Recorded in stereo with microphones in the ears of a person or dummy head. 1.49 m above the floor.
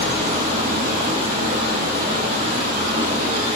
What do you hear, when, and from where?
0.0 s running water: 30° right (ahead or behind), 3.5 m